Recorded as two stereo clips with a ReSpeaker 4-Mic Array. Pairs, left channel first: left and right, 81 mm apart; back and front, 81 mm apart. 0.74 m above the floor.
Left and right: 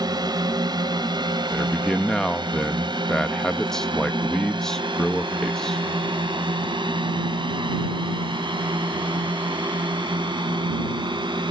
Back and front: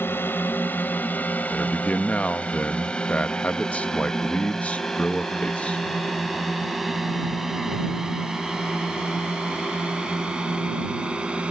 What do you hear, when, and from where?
0.0 s a drone: 115° right; by 11.5 s 75° right
1.5 s a man speaking: 155° left